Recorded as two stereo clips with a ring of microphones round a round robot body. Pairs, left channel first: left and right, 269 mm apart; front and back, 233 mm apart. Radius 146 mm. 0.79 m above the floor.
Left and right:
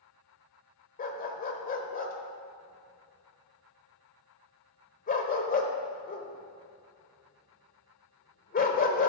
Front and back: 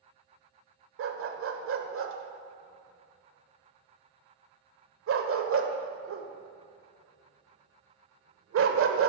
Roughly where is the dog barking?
Behind left.